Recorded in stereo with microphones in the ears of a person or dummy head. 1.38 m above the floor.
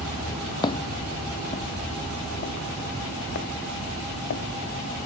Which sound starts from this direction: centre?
Footsteps, at 0.6 s.